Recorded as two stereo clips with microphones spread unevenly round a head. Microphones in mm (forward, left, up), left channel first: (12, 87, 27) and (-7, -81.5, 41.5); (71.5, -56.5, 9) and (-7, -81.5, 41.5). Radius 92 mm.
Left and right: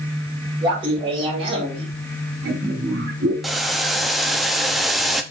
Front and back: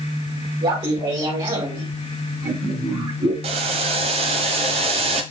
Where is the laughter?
160° right, 5 m; by 3.3 s 140° right, 4 m.